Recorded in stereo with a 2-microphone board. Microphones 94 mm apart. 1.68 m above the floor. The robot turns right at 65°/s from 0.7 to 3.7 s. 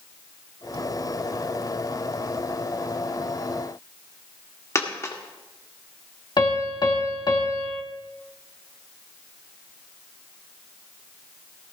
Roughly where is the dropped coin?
Left.